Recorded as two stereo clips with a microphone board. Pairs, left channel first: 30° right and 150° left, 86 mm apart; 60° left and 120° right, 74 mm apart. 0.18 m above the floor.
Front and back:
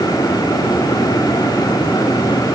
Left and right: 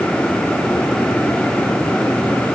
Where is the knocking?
I don't hear knocking.